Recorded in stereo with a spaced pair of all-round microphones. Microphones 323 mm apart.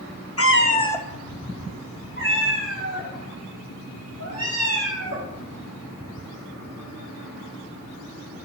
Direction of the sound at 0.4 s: 45° left (ahead or behind).